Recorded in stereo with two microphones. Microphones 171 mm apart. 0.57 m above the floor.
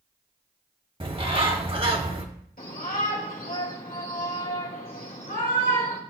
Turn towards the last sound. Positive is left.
turn(degrees=55)  # may be behind; listen again after turning